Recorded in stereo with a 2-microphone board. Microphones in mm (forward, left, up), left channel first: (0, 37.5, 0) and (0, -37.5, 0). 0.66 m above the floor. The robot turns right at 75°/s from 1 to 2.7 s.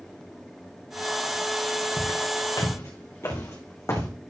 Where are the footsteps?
70° left (ahead or behind), 3 m; by 4.1 s 40° left (ahead or behind), 1.8 m.